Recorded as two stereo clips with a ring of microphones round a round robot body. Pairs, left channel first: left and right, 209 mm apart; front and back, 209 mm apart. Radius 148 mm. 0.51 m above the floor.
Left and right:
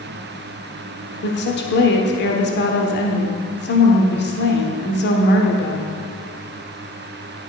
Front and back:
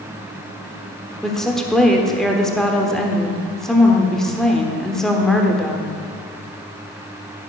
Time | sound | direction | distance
1.2 | a woman speaking | 85° left | 1.3 m